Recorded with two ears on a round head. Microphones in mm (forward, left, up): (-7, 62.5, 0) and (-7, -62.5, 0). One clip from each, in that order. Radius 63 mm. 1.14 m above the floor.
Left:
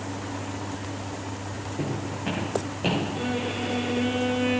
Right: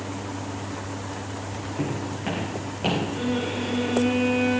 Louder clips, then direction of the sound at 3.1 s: Right 1 dB; 5° right (ahead or behind).